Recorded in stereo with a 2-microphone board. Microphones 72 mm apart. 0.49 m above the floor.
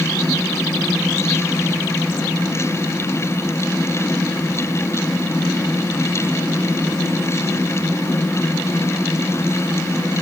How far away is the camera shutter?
I don't hear a camera shutter.